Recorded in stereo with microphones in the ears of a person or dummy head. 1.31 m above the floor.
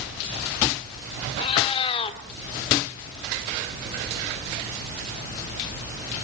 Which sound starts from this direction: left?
A cat meowing, at 1.4 s.